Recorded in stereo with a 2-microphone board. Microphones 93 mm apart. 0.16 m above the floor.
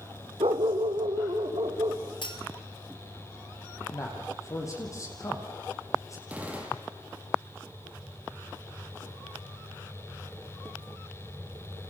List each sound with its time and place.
0.4 s a dog barking: 80° right, 1.5 m; by 2.0 s 60° right (ahead or behind), 3 m
2.2 s cutlery clinking: 60° left (ahead or behind), 2 m
3.9 s a man speaking: 35° left (ahead or behind), 5.5 m
6.3 s a gunshot: 15° right (ahead or behind), 4.5 m